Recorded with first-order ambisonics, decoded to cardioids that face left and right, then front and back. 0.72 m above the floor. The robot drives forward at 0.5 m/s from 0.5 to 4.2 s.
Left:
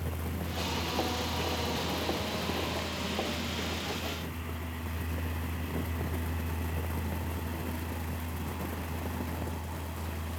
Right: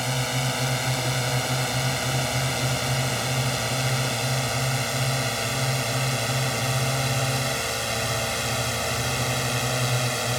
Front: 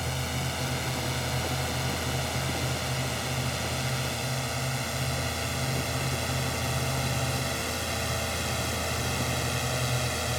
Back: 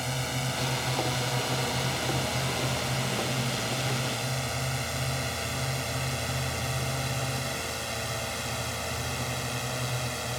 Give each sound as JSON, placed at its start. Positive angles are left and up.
{"t": 0.0, "sound": "a drone", "azimuth_deg": -95}